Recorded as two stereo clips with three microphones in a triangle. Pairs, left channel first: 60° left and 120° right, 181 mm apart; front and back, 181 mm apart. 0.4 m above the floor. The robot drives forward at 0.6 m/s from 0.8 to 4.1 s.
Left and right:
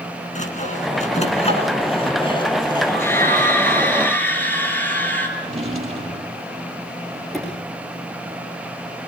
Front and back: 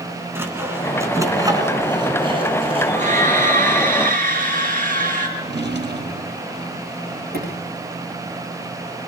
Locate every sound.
0.3 s sawing: 105° left, 3 m; by 3.3 s 130° left, 3.5 m
2.9 s a scream: 135° left, 6.5 m; by 5.3 s 140° left, 7 m
5.4 s a drawer: 170° right, 3 m
7.3 s a sliding door: 150° left, 8 m